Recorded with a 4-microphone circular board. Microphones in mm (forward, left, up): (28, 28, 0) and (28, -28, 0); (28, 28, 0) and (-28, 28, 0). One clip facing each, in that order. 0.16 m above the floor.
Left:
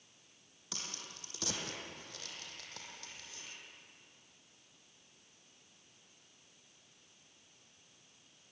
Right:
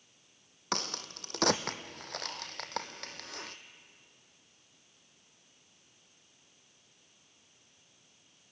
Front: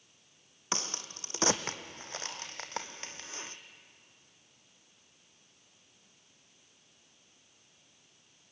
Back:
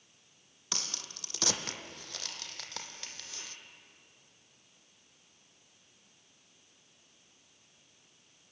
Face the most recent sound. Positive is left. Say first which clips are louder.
# right 11 dB, front 5 dB
turn(degrees=-60)